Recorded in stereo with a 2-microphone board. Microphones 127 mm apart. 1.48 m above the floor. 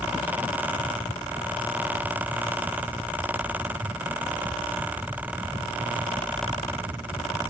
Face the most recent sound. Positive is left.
No sound to turn to.